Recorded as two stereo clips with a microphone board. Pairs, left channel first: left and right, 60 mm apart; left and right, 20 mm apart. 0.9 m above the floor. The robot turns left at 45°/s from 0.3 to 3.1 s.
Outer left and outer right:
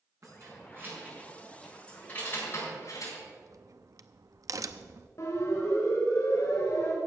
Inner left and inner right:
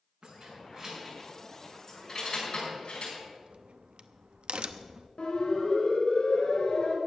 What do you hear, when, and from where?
0.2 s keys jangling: 60° right (ahead or behind), 6 m; by 3.1 s 65° left (ahead or behind), 6 m
3.2 s a crack: 60° right (ahead or behind), 0.7 m
5.2 s a siren: 55° left (ahead or behind), 4 m; by 7.0 s 65° left (ahead or behind), 3.5 m